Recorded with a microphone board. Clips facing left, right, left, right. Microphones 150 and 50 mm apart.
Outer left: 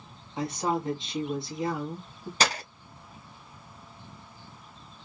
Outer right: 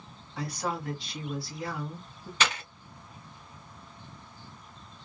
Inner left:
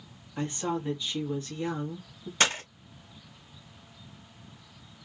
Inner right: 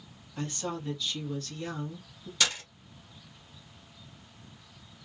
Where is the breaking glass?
40° left (ahead or behind), 0.5 m.